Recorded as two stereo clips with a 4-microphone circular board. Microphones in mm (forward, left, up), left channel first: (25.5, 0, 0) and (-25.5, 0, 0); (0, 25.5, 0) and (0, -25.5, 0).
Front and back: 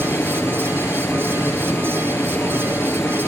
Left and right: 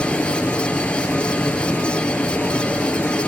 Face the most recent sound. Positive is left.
turn(degrees=25)